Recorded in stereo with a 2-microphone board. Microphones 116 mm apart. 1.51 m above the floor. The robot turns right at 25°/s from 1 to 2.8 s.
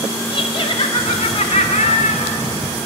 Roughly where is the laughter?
Ahead left.